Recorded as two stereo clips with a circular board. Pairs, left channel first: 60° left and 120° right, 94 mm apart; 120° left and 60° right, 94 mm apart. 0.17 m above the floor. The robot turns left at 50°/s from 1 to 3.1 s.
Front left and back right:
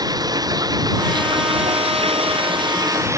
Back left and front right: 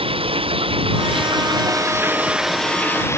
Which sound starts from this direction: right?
Running water, at 0.0 s.